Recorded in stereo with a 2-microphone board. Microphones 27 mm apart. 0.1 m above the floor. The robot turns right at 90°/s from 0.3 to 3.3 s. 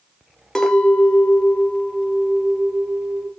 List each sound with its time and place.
0.6 s a clink: 25° left, 1.0 m; by 3.3 s 85° right, 1.0 m